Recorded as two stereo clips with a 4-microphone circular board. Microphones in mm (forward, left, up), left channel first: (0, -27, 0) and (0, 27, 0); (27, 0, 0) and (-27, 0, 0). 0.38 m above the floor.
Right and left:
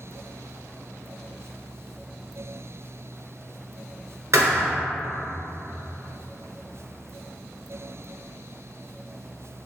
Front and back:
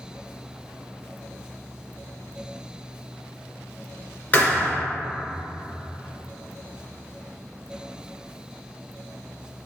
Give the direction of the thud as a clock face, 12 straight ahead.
10 o'clock.